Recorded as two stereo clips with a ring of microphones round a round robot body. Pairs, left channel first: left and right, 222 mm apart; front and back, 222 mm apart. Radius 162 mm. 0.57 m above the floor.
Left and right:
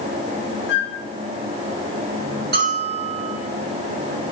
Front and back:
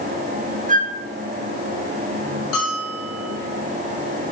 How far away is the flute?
About 1.3 m.